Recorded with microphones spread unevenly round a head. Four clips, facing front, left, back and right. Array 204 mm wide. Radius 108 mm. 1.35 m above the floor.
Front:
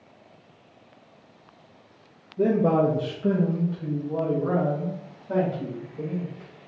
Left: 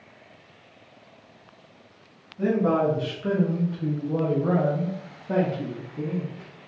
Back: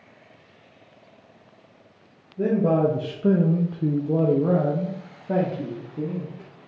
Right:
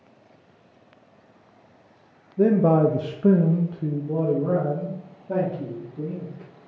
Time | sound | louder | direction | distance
2.4 | a man speaking | right 4 dB, even | 65° right | 0.6 m